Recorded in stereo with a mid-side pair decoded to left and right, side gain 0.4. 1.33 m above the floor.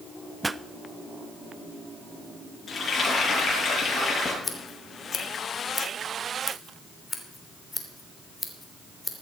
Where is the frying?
50° left, 8.5 m.